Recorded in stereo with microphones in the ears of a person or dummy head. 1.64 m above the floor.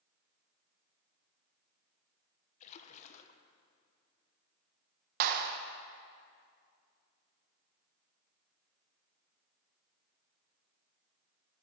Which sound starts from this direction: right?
A clap, at 5.2 s.